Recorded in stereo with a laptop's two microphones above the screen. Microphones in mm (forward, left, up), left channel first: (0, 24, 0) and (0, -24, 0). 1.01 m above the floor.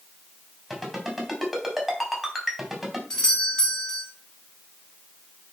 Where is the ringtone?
Centre (ahead or behind), 4 m.